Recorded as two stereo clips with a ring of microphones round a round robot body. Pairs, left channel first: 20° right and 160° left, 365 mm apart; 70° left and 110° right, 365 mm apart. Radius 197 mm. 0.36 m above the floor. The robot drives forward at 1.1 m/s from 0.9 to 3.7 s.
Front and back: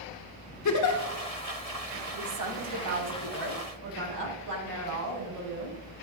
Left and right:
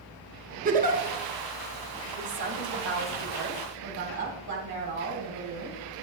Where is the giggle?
50° right, 1.2 m; by 1.0 s 55° right, 1.2 m.